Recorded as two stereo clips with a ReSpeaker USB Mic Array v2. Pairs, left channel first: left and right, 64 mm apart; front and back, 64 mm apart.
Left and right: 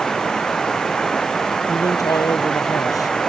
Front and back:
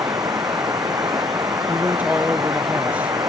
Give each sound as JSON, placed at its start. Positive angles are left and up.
{"t": 0.0, "sound": "running water", "azimuth_deg": 170}
{"t": 1.7, "sound": "a man speaking", "azimuth_deg": 115}